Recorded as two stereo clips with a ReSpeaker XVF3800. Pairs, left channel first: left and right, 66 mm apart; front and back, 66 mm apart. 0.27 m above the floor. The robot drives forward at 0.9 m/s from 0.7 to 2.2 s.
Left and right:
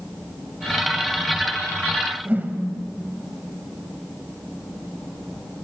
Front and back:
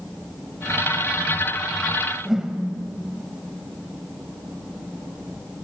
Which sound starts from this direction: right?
A whoosh, at 2.2 s.